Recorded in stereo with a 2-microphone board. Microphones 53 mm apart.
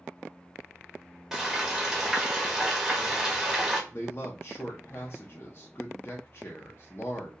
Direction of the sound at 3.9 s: 45° left (ahead or behind).